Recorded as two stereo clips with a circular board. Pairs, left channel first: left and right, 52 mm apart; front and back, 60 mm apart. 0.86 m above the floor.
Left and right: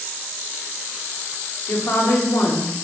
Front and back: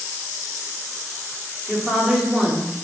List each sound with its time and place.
1.7 s a woman speaking: 105° left, 2 m